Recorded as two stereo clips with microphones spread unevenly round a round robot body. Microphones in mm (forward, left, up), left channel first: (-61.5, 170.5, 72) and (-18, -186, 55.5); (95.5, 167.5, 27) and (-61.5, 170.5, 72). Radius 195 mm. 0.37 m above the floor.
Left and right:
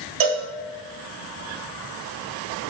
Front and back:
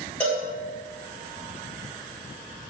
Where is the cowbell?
75° right, 1.6 m.